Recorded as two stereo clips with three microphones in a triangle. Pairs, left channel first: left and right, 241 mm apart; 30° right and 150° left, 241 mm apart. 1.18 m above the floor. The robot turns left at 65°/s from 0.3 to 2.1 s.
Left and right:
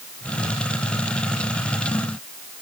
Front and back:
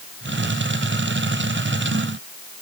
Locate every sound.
Only background noise.